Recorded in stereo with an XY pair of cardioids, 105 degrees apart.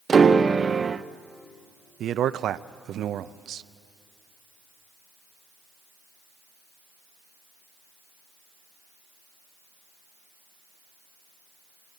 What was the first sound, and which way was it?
A piano, 35° right.